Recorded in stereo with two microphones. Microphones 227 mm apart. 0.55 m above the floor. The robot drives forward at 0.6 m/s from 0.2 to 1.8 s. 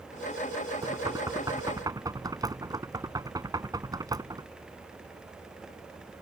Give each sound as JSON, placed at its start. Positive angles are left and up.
{"t": 0.8, "sound": "knocking", "side_deg": -15}